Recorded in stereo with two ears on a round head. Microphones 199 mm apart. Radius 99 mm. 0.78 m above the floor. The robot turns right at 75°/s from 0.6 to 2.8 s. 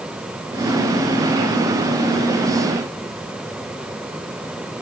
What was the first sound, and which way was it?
Only background noise.